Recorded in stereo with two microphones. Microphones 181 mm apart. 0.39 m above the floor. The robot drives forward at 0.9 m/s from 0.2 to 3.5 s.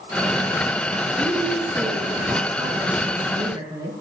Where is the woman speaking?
25° right (ahead or behind), 3.5 m; by 3.9 s 20° right (ahead or behind), 5.5 m.